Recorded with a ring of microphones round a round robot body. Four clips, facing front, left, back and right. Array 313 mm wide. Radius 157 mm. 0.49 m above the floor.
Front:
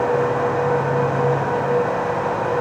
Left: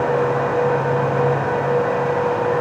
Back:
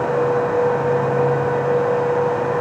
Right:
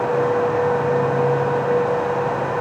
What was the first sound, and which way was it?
Only background noise.